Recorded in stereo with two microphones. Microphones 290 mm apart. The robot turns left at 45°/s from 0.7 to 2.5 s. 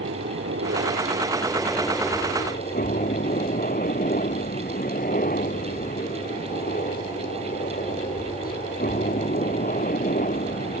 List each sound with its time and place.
0.0 s a helicopter: 130° right; by 10.8 s 145° left